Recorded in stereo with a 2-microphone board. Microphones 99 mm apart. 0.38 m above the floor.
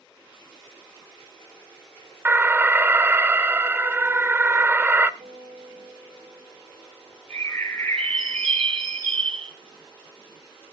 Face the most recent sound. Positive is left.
turn(degrees=10)  # may be behind; listen again after turning